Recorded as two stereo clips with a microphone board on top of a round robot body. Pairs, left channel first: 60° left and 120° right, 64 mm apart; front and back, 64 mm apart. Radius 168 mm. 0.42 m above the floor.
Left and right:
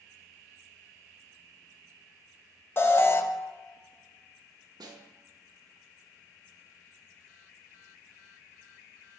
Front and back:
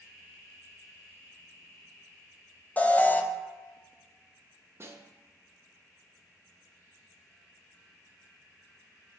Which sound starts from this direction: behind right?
A snare drum, at 4.8 s.